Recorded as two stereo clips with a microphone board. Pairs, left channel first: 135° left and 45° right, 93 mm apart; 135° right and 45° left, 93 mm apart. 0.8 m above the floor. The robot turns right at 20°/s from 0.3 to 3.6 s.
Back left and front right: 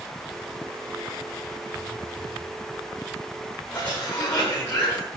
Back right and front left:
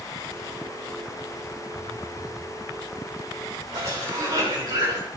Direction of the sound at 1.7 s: 100° left.